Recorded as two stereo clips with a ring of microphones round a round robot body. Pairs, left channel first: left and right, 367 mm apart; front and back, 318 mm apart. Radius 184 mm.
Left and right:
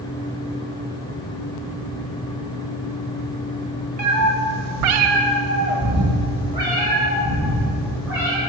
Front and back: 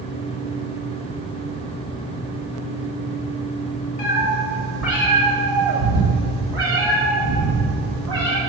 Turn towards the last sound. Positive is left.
turn(degrees=-175)